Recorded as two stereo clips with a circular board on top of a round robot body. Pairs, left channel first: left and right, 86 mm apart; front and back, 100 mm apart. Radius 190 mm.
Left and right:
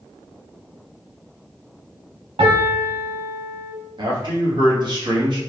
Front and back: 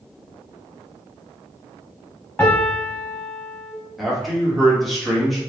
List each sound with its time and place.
2.4 s a piano: 70° right, 0.7 m
4.0 s a man speaking: 90° right, 1.7 m